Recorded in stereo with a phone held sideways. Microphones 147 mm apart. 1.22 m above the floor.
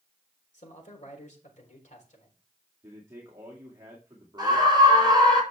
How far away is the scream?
About 6 m.